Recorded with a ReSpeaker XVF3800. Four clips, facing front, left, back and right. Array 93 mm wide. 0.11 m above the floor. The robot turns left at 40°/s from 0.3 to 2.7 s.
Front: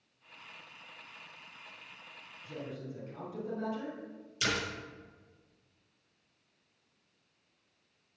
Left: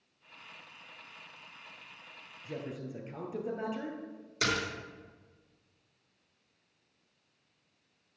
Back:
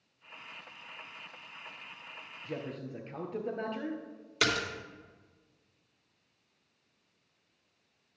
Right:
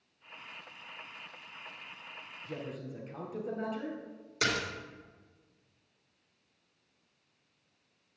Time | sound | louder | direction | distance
2.5 | a man speaking | left 1 dB, back 3 dB | 170° left | 2 m
4.4 | a splash | even, back 3 dB | straight behind | 3.5 m